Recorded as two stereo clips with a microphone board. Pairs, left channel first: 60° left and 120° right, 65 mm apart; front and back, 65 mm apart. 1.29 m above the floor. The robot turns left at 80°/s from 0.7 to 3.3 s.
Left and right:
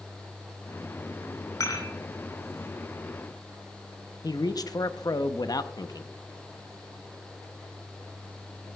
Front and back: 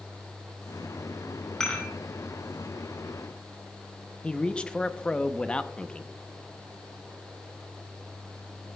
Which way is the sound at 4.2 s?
75° left.